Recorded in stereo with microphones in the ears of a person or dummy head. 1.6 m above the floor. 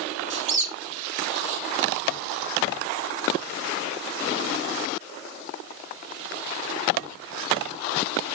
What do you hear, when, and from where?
0.3 s a squeak: 35° right (ahead or behind), 0.7 m